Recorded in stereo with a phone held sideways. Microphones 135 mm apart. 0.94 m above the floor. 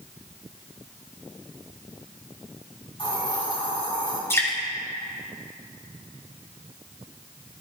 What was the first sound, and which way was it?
A hiss, 40° left (ahead or behind).